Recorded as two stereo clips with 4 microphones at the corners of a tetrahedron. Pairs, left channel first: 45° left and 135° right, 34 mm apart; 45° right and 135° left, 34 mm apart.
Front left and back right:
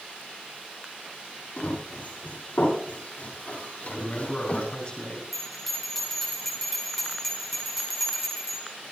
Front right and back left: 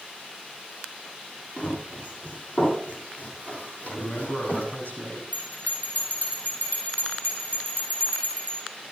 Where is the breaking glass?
No breaking glass in this recording.